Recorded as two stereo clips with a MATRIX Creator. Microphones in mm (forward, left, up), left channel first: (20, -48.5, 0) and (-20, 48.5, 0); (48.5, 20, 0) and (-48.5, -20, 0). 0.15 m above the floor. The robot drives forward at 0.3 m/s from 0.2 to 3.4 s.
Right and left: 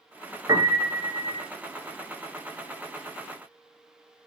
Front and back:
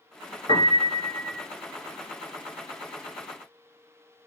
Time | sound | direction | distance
0.5 | a piano | 55° left | 0.5 m